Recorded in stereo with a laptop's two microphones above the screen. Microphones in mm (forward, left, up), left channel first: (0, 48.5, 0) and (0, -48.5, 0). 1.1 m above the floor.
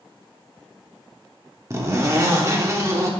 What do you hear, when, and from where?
1.7 s a zipper: 30° right (ahead or behind), 1.0 m